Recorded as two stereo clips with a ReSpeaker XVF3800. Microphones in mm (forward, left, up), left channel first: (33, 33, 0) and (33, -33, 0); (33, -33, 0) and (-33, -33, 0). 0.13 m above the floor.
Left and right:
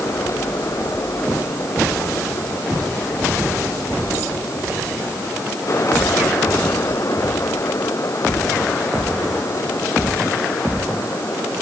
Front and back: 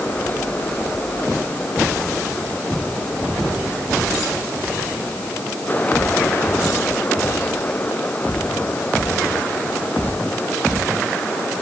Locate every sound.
Only background noise.